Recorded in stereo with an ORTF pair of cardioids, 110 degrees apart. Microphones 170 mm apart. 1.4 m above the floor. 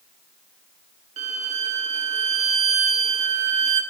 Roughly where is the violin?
Ahead right.